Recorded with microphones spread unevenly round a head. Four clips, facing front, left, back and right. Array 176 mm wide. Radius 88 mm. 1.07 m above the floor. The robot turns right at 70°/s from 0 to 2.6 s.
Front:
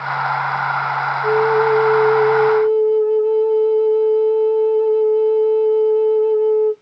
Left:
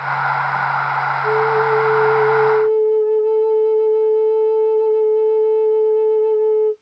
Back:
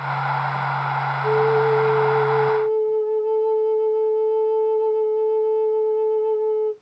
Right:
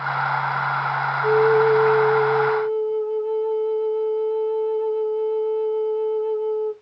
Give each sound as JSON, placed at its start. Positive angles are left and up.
{"t": 1.2, "sound": "a flute", "azimuth_deg": -50, "distance_m": 1.5}